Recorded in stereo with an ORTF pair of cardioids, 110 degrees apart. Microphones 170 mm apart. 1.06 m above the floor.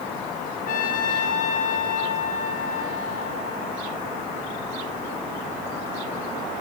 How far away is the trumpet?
About 1.0 m.